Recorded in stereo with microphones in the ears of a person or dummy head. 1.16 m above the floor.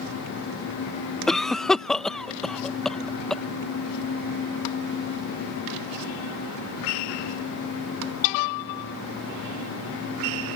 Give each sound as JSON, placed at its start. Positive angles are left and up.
{"t": 1.3, "sound": "a cough", "side_deg": 5}